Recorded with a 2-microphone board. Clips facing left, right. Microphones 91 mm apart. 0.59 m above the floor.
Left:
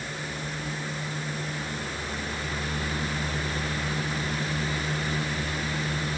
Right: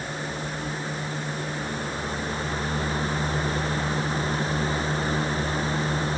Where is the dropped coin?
I don't hear a dropped coin.